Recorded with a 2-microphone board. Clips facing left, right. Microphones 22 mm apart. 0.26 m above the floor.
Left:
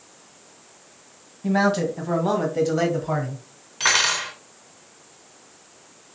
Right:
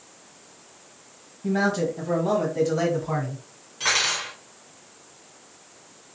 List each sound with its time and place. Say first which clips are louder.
1.4 s a man speaking: left 3 dB; 40° left (ahead or behind), 1.4 m; by 3.4 s 10° left (ahead or behind), 1.8 m
3.8 s cutlery clinking: left 3 dB; 35° left (ahead or behind), 1.2 m